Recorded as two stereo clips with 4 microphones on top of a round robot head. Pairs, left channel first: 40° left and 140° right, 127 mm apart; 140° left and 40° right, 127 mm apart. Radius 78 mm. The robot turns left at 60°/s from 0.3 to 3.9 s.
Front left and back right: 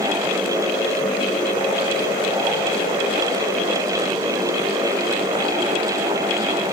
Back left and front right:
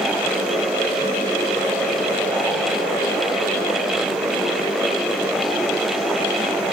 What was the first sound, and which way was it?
Only background noise.